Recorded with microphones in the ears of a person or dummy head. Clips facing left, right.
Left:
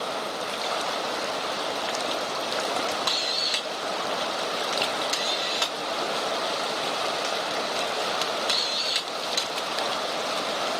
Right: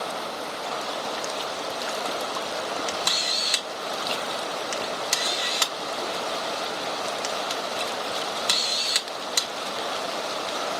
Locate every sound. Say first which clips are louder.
2.9 s a camera shutter: left 1 dB; 50° right (ahead or behind), 0.6 m